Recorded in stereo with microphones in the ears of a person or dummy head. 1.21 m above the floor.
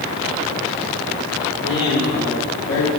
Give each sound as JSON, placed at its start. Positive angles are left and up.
{"t": 1.6, "sound": "a man speaking", "side_deg": 30, "distance_m": 3.5}